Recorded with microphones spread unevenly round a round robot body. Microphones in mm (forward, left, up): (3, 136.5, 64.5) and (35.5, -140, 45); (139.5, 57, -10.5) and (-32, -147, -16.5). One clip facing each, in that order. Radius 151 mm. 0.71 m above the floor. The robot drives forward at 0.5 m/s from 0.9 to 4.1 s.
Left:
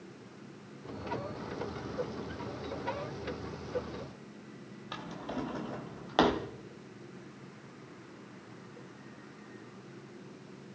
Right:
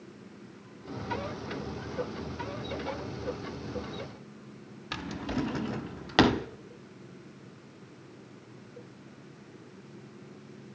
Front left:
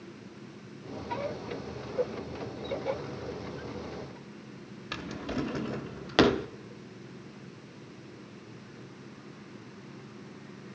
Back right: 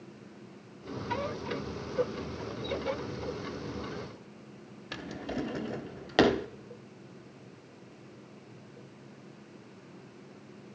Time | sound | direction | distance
4.9 | a drawer | 30° right | 0.7 m